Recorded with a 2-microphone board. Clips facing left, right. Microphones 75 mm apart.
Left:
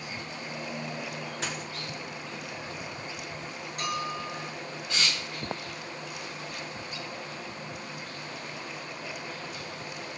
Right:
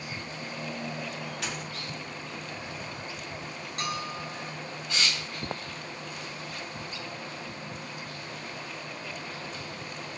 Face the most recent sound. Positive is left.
turn(degrees=-70)  # may be behind; listen again after turning